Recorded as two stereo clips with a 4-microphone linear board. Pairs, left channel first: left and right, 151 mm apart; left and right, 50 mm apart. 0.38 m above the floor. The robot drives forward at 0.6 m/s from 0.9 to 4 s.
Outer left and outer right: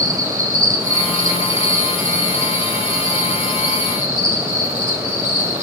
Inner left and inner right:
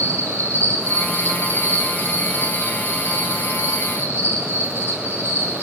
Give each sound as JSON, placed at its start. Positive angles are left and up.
{"t": 0.0, "sound": "an insect", "side_deg": -60, "distance_m": 6.0}